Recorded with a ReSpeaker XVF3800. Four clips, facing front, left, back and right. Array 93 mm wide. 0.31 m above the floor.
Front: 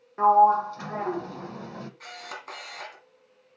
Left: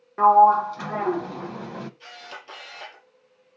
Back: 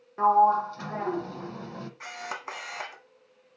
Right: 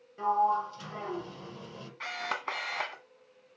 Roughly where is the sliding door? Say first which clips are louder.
Left 12 dB, front 2 dB; left.